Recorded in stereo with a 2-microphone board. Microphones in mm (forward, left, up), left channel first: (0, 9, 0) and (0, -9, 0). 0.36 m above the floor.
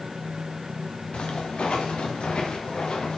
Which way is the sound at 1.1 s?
80° left.